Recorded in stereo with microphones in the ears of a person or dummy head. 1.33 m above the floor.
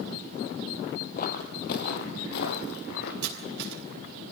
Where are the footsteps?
45° left (ahead or behind), 2.5 m; by 3.1 s 60° left (ahead or behind), 3 m.